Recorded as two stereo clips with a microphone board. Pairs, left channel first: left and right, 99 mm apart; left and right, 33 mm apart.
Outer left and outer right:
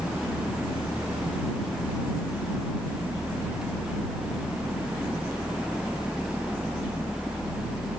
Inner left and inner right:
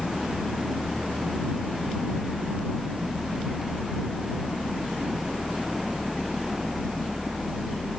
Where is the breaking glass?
I don't hear breaking glass.